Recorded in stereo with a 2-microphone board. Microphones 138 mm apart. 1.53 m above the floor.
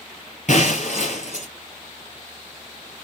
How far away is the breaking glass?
About 3 m.